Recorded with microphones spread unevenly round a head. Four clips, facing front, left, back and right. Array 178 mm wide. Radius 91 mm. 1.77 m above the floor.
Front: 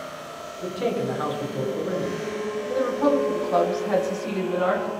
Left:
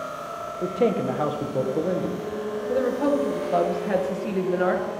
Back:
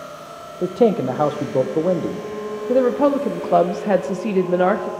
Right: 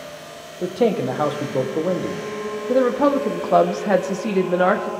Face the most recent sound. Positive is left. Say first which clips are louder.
# right 6 dB, back 6 dB
turn(degrees=-145)